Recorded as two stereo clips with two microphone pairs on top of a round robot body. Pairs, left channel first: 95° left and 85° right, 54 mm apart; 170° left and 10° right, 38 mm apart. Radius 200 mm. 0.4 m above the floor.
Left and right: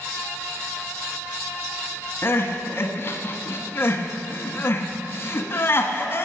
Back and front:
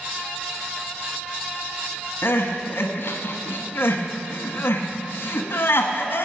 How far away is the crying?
About 1.2 m.